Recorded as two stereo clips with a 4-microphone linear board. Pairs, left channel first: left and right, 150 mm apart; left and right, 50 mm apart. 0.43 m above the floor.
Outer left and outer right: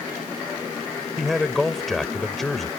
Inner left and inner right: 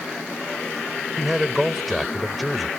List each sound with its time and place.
1.2 s a man speaking: centre (ahead or behind)